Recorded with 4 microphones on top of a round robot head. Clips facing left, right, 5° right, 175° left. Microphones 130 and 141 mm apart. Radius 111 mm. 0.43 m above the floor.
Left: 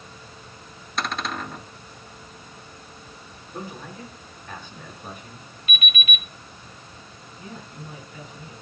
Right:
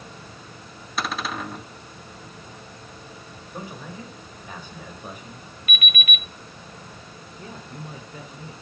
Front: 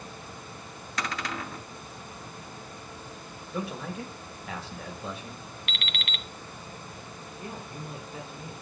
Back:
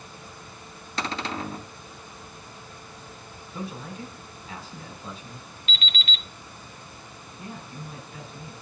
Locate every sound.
1.0 s a cupboard door: 170° right, 0.6 m
3.5 s a man speaking: 10° right, 2 m
5.7 s an alarm clock: 25° left, 0.7 m
7.4 s a man speaking: 60° right, 1.3 m